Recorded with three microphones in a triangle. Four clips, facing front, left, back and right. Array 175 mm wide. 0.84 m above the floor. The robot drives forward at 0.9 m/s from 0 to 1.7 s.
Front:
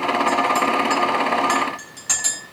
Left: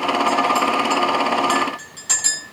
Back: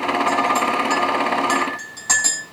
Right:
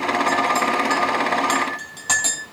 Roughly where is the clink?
Behind right.